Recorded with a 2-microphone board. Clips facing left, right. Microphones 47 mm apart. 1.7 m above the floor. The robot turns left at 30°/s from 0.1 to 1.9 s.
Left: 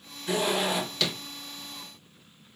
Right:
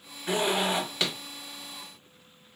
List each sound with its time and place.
0.3 s a zipper: 35° right (ahead or behind), 1.6 m; by 1.1 s 20° right (ahead or behind), 1.6 m